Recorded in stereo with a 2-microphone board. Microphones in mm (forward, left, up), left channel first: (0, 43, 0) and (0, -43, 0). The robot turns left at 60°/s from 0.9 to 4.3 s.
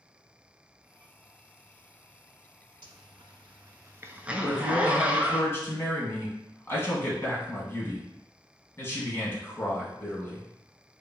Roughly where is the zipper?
Right.